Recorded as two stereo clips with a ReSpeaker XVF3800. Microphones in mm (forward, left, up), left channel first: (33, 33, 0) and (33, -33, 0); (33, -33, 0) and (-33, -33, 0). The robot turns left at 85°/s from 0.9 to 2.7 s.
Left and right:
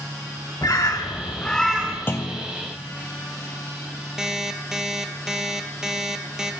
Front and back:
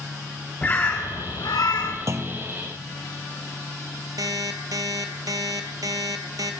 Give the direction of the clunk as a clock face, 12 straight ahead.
7 o'clock.